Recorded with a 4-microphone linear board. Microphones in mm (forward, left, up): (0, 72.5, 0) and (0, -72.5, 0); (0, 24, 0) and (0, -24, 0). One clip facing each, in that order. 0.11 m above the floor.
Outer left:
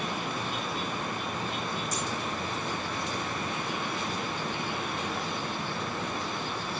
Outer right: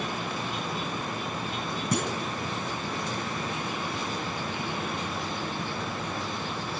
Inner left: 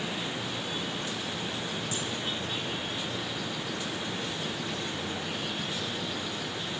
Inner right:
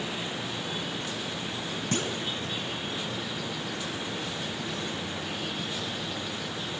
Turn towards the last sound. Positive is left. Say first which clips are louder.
# outer right 4 dB, inner right 3 dB
turn(degrees=-60)  # may be behind; listen again after turning